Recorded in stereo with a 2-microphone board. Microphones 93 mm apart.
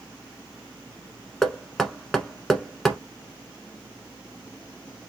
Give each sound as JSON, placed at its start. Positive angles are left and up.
{"t": 1.4, "sound": "knocking", "side_deg": 5, "distance_m": 0.9}